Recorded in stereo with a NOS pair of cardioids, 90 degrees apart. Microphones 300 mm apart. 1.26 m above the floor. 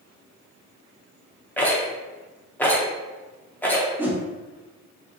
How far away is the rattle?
About 0.6 m.